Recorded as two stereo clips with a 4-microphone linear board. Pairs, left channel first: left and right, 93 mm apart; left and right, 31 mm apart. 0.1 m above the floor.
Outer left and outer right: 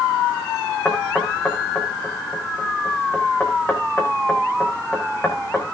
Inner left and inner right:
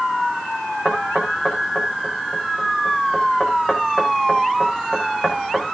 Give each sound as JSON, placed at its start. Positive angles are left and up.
{"t": 0.8, "sound": "knocking", "side_deg": 20, "distance_m": 5.5}